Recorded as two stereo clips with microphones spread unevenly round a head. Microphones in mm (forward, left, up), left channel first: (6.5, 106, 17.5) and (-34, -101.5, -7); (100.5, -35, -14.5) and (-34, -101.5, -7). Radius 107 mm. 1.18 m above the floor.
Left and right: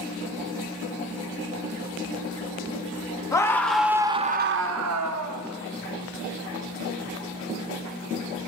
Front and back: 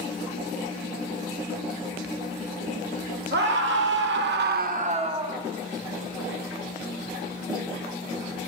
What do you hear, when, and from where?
3.3 s a scream: 155° left, 2 m; by 5.4 s 90° right, 1.9 m